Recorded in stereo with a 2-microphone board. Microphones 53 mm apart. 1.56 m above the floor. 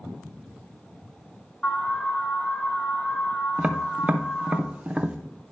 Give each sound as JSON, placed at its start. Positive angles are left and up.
{"t": 1.6, "sound": "an alarm", "side_deg": 20, "distance_m": 2.0}
{"t": 3.6, "sound": "tapping", "side_deg": -25, "distance_m": 0.6}